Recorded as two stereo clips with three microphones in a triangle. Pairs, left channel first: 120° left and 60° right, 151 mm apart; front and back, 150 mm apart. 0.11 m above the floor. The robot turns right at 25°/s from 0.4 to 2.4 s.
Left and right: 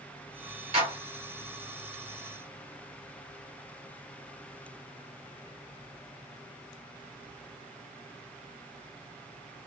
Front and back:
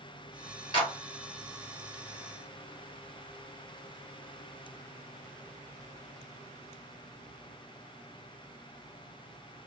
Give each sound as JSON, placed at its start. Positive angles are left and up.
{"t": 0.7, "sound": "a clap", "azimuth_deg": -40, "distance_m": 1.8}